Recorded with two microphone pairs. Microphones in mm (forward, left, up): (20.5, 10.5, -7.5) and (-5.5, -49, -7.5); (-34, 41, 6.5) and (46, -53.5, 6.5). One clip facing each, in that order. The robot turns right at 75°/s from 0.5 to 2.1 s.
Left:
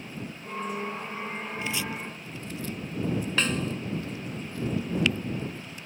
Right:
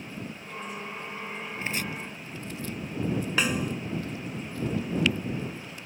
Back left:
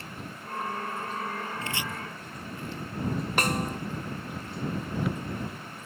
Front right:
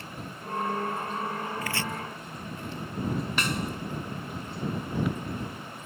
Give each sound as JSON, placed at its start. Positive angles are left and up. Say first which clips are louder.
{"t": 1.6, "sound": "chopping", "louder": "right 1 dB, front right 2 dB", "azimuth_deg": -170}
{"t": 3.4, "sound": "a snare drum", "louder": "right 1 dB, back left 2 dB", "azimuth_deg": 165}